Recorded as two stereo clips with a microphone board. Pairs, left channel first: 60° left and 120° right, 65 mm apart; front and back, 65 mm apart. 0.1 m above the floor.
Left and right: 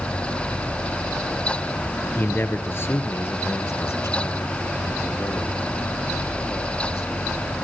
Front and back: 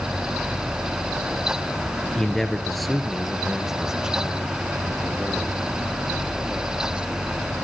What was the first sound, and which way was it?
A man speaking, 70° left.